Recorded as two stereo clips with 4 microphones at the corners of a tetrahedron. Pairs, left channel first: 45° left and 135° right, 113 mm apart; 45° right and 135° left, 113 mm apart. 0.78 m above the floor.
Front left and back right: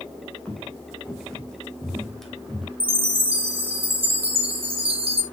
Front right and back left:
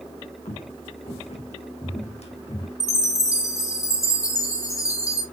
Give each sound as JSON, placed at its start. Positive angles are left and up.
{"t": 0.5, "sound": "footsteps", "azimuth_deg": -35, "distance_m": 3.5}
{"t": 2.8, "sound": "a chime", "azimuth_deg": -105, "distance_m": 1.6}